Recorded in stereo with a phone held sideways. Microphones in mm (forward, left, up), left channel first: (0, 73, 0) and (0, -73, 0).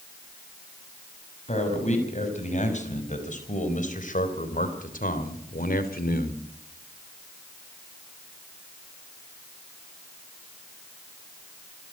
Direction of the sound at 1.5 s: 50° left (ahead or behind).